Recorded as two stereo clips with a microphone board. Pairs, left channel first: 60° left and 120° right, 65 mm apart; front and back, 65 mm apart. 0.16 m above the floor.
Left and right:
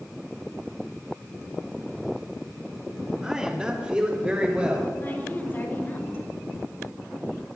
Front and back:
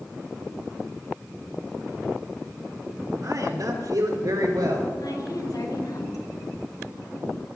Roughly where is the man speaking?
Behind.